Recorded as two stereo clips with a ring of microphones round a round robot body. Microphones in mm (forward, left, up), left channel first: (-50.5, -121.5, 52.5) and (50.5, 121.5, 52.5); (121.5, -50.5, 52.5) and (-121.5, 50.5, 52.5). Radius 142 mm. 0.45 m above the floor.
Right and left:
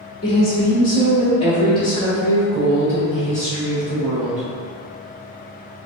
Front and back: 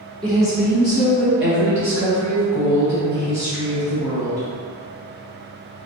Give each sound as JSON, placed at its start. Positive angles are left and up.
{"t": 0.2, "sound": "a woman speaking", "azimuth_deg": -135, "distance_m": 1.3}